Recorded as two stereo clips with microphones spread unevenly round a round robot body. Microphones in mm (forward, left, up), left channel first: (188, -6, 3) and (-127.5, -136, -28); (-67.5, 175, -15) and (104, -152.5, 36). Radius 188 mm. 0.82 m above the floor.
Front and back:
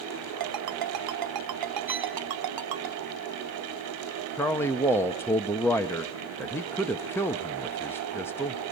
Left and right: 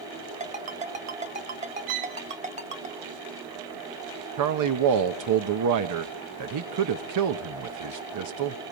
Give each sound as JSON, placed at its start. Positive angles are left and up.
{"t": 0.4, "sound": "a ringtone", "azimuth_deg": -135, "distance_m": 1.9}
{"t": 1.9, "sound": "a violin", "azimuth_deg": -70, "distance_m": 2.5}
{"t": 4.4, "sound": "a man speaking", "azimuth_deg": -65, "distance_m": 1.0}